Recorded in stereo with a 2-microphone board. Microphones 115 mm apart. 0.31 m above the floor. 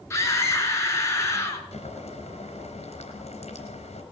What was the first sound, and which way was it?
A scream, 25° left (ahead or behind).